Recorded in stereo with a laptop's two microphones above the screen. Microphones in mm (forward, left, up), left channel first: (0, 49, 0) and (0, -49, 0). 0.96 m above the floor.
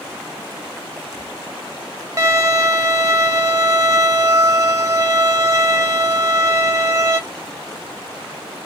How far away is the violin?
About 0.5 m.